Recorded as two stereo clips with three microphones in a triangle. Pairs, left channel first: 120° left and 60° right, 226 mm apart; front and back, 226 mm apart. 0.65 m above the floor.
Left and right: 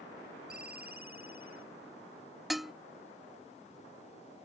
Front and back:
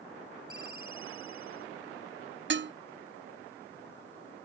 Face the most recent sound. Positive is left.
turn(degrees=-150)